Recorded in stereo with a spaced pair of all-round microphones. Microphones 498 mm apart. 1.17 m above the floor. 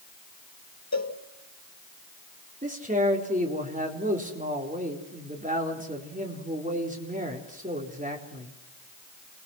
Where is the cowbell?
30° left (ahead or behind), 2 m.